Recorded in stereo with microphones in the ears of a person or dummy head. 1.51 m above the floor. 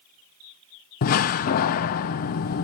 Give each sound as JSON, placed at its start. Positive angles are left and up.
{"t": 1.0, "sound": "a door slam", "side_deg": 45, "distance_m": 0.5}